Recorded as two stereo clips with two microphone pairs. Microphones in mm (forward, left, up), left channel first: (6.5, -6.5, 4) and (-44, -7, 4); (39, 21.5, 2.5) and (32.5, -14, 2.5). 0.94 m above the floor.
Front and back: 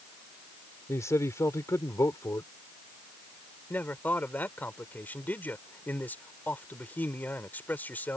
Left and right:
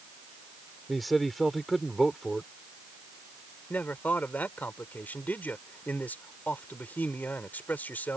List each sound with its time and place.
0.9 s a man speaking: 5° right
3.7 s a man speaking: 55° left